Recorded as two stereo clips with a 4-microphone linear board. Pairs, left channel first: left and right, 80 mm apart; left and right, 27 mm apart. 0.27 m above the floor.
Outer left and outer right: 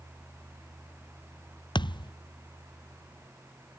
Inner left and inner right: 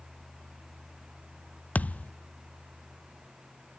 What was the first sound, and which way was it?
A thud, 85° left.